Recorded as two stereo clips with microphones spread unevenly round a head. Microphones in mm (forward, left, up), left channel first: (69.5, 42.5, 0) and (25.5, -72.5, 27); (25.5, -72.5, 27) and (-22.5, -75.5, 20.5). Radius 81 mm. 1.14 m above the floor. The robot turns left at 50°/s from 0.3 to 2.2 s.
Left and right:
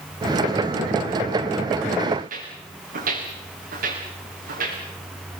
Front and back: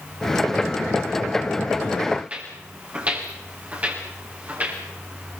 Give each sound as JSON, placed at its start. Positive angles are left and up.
{"t": 2.2, "sound": "footsteps", "azimuth_deg": -110, "distance_m": 9.0}